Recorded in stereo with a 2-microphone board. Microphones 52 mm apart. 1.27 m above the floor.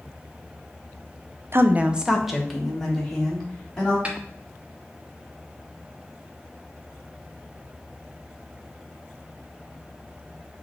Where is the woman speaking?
50° right (ahead or behind), 0.5 m; by 4.0 s 10° left (ahead or behind), 3.5 m.